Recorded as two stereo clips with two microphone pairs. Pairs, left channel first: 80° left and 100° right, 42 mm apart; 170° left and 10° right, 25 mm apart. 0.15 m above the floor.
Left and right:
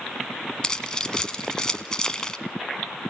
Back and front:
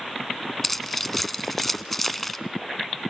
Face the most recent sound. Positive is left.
turn(degrees=100)